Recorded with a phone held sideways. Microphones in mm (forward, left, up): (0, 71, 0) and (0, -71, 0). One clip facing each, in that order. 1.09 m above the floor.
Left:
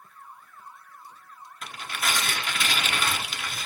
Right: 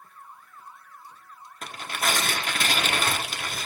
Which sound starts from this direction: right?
Tearing paper, at 1.6 s.